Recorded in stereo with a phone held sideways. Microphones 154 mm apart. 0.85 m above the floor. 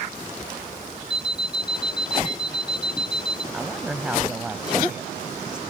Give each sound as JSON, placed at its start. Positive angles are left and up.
{"t": 1.1, "sound": "an alarm clock", "side_deg": 30}
{"t": 3.5, "sound": "a woman speaking", "side_deg": -5}